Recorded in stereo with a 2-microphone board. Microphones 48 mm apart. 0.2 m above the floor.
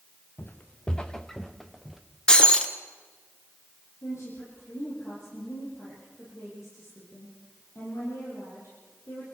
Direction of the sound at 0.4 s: 40° left (ahead or behind).